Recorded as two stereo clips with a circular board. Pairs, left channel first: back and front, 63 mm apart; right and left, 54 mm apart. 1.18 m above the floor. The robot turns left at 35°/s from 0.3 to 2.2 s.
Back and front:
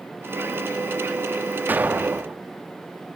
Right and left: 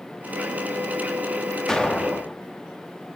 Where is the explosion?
20° right, 0.6 m; by 2.4 s 40° right, 0.6 m.